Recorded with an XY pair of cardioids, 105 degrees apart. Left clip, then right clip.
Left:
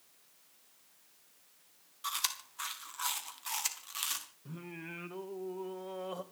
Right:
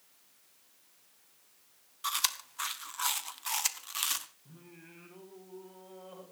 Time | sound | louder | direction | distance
2.0 | chewing | right 4 dB | 25° right | 1.8 m
4.5 | singing | left 9 dB | 65° left | 2 m